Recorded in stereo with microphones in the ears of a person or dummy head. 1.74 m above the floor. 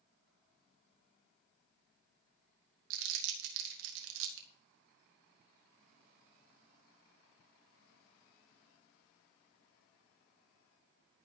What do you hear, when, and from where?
2.9 s crumpling: 75° right (ahead or behind), 2 m